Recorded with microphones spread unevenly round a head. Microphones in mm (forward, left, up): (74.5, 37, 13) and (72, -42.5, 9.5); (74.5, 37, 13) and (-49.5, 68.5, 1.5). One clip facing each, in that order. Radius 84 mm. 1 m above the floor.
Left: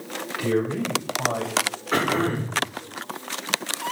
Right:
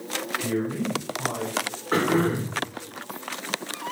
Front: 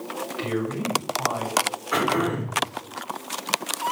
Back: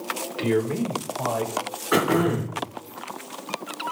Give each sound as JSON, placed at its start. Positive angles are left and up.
{"t": 0.4, "sound": "a man speaking", "azimuth_deg": 145, "distance_m": 4.0}
{"t": 1.9, "sound": "throat clearing", "azimuth_deg": -165, "distance_m": 4.0}